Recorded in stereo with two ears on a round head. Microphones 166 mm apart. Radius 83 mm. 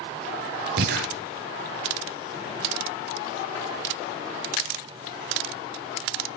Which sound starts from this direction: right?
Breathing, at 0.8 s.